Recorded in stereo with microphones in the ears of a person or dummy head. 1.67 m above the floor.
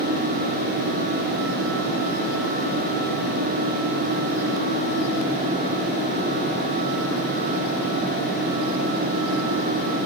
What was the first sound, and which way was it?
Only background noise.